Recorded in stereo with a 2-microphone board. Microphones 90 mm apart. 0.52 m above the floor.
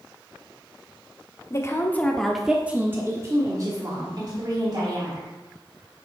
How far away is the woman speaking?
About 1.0 m.